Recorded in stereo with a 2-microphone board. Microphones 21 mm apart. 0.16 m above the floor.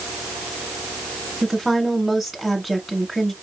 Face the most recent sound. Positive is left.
turn(degrees=-10)  # may be behind; listen again after turning